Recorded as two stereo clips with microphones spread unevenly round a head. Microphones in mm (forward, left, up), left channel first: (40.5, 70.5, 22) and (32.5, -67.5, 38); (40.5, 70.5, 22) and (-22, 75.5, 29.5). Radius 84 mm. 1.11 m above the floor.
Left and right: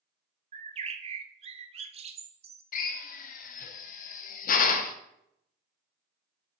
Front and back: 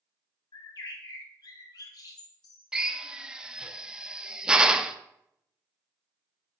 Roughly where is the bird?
Ahead right.